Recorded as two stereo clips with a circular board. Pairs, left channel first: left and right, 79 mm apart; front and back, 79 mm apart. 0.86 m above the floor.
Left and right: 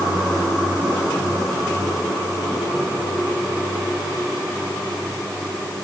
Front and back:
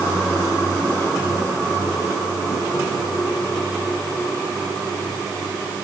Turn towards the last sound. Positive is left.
No sound to turn to.